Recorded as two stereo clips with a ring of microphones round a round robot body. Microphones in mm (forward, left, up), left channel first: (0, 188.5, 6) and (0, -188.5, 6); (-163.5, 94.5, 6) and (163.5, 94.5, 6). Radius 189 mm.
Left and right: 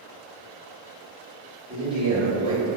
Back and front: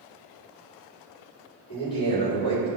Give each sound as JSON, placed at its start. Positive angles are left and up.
{"t": 1.7, "sound": "a man speaking", "azimuth_deg": -150, "distance_m": 1.6}